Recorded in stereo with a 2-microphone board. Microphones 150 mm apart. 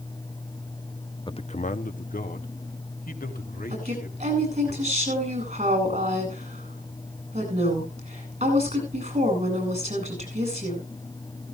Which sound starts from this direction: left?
A man speaking, at 1.3 s.